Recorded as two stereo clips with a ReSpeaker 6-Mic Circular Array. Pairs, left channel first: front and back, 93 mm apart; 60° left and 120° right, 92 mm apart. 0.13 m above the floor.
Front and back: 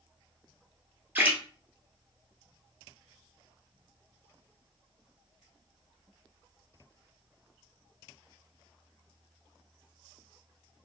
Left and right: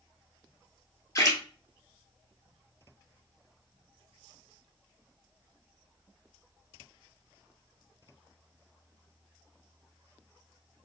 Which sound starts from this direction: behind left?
A splash, at 1.1 s.